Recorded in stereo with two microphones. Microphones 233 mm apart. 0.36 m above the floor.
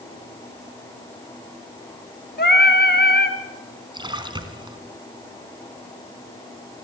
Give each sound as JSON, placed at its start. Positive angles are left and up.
{"t": 2.4, "sound": "singing", "side_deg": 45, "distance_m": 2.5}
{"t": 3.9, "sound": "a splash", "side_deg": -20, "distance_m": 2.5}